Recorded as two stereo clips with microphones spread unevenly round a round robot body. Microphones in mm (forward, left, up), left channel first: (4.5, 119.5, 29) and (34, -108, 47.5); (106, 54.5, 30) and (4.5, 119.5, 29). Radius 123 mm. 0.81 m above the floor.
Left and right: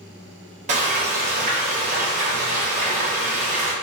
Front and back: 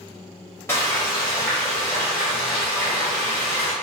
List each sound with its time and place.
0.7 s frying: 85° right, 0.6 m